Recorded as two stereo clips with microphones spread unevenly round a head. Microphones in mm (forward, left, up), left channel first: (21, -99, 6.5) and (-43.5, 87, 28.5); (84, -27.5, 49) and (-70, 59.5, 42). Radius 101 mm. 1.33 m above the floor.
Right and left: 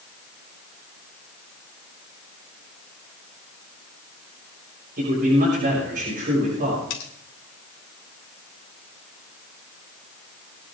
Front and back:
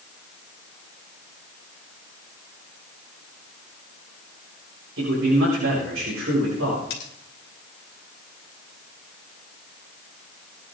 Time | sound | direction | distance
5.0 | a man speaking | 155° left | 7 m
6.9 | cutlery clinking | 70° right | 2.5 m